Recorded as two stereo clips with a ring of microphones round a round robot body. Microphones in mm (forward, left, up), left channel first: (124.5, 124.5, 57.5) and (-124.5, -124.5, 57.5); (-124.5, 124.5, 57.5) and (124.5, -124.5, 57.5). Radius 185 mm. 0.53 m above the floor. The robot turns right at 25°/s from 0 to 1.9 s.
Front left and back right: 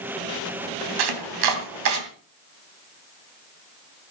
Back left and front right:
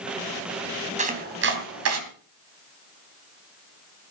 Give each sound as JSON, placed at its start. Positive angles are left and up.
{"t": 1.0, "sound": "chopping", "azimuth_deg": -115, "distance_m": 3.0}